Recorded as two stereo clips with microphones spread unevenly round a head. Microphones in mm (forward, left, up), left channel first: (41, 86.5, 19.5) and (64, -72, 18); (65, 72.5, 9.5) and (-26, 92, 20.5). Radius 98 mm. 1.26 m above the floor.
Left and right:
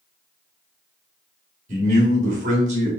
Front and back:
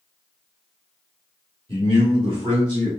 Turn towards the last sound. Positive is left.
turn(degrees=-135)